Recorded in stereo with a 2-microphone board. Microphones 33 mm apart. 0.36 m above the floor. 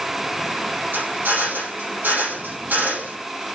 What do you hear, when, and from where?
0.9 s a drill: 75° right (ahead or behind), 7 m